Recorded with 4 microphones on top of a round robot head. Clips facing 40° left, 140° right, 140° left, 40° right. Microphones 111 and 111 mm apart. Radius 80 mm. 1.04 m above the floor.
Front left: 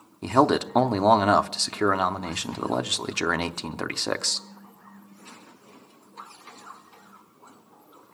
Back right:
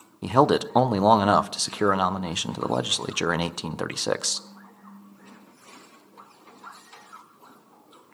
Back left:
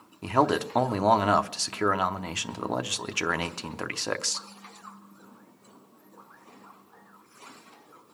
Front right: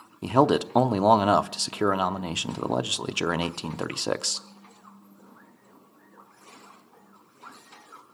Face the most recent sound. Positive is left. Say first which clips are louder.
# back right 1 dB, front right 3 dB
turn(degrees=-70)